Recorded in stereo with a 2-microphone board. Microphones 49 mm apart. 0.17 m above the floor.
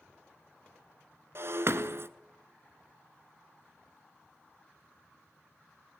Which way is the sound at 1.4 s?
60° right (ahead or behind).